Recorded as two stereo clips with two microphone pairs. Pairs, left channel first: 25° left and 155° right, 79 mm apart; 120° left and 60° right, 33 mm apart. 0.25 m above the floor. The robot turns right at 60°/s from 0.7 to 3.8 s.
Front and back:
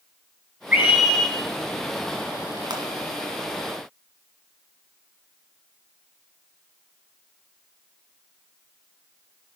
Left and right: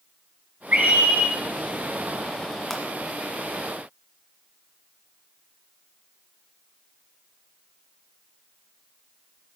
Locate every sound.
0.7 s a scream: 85° right, 5 m; by 1.4 s 50° right, 5 m
2.7 s a pop: 155° right, 1.8 m; by 2.8 s 145° right, 1.8 m